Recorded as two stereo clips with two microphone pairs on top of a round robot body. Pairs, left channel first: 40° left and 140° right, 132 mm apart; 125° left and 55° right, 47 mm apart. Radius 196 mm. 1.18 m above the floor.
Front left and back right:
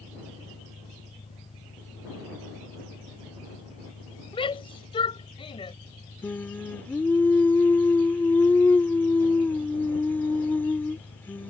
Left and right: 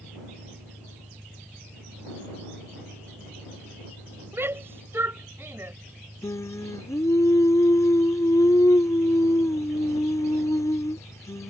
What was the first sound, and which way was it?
An engine running, 15° right.